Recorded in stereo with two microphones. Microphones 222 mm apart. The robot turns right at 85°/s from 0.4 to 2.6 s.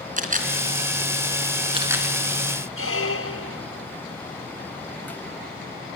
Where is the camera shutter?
35° right (ahead or behind), 3.5 m; by 2.1 s centre (ahead or behind), 3.5 m.